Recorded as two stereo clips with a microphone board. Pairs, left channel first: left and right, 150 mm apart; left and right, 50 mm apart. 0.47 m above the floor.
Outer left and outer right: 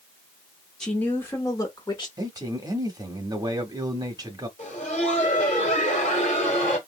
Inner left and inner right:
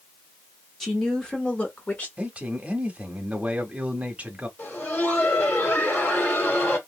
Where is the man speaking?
30° right (ahead or behind), 0.9 m.